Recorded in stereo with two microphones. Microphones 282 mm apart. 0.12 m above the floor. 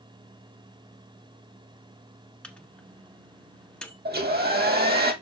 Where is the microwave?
5° left (ahead or behind), 1.0 m.